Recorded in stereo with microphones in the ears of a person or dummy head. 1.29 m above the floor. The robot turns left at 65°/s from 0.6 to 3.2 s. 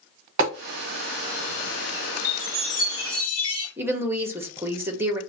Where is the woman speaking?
10° right (ahead or behind), 0.7 m.